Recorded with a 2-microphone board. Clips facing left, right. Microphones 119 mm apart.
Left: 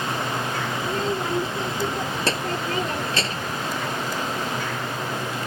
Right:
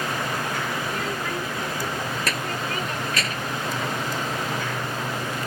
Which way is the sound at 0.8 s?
30° left (ahead or behind).